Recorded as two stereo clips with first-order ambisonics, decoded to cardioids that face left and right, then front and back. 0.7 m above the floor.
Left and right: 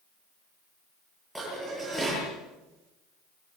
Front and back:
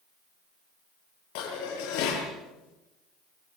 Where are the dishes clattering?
5° right, 10 m.